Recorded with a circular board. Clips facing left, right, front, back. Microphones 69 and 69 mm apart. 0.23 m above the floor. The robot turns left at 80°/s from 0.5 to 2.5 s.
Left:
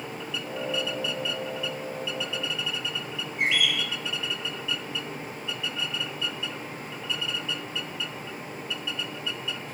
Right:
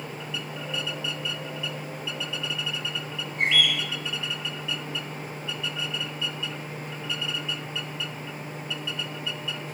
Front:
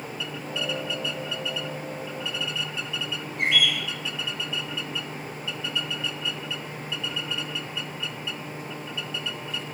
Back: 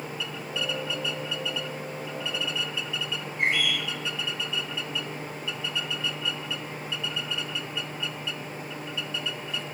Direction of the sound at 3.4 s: 5° left.